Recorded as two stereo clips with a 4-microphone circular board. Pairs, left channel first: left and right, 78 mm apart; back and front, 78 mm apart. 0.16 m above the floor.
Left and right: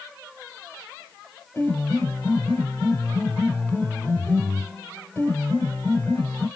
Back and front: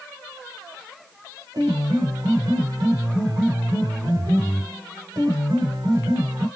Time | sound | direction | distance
1.5 | a piano | 20° left | 3.5 m